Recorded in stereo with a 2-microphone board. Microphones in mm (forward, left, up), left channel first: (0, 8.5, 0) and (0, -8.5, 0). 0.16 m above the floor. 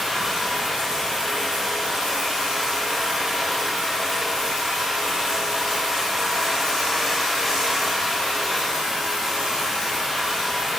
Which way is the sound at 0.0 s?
35° right (ahead or behind).